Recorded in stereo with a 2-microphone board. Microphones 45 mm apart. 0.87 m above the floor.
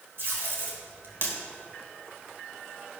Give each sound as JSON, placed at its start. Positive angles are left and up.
{"t": 0.2, "sound": "tape being pulled", "side_deg": -55, "distance_m": 1.8}